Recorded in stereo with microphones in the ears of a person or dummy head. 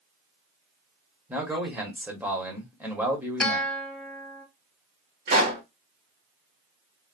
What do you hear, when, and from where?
1.3 s a man speaking: 10° right (ahead or behind), 1.0 m
3.4 s a guitar: 5° left (ahead or behind), 0.7 m
5.3 s a pop: 55° right (ahead or behind), 1.7 m